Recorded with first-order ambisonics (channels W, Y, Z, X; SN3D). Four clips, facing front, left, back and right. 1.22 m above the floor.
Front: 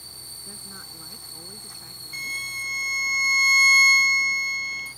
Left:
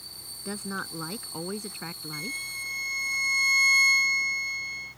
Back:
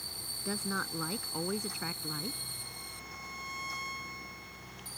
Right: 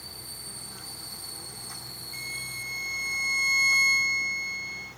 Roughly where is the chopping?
No chopping in this recording.